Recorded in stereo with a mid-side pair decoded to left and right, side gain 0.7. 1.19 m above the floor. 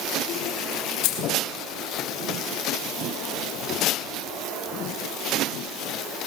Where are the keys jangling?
55° left, 3 m.